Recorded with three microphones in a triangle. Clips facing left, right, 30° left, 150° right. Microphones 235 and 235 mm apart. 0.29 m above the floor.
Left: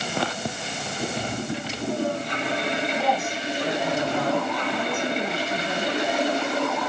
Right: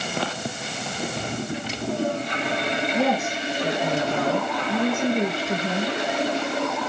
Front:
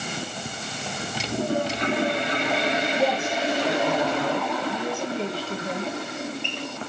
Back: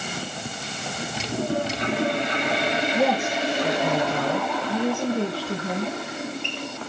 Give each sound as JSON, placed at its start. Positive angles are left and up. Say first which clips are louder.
{"t": 2.9, "sound": "a woman speaking", "louder": "right 3 dB, back 4 dB", "azimuth_deg": -125, "distance_m": 3.5}